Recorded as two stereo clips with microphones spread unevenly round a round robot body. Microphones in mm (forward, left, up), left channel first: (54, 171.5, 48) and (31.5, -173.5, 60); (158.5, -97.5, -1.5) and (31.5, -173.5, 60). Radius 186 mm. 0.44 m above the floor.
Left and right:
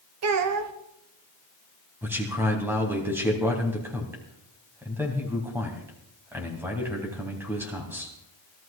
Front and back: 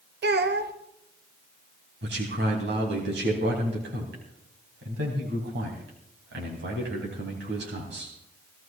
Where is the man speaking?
Straight behind, 3 m.